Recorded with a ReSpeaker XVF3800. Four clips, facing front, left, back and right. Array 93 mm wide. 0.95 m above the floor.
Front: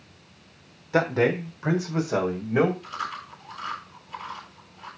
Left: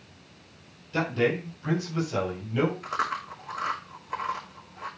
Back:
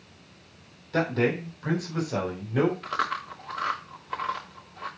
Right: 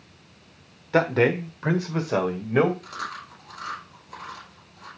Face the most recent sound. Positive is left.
turn(degrees=150)